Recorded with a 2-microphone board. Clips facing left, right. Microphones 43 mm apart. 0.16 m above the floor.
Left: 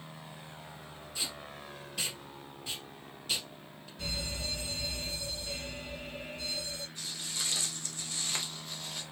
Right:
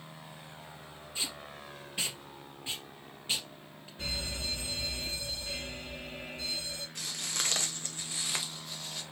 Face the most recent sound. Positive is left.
turn(degrees=5)  # may be behind; listen again after turning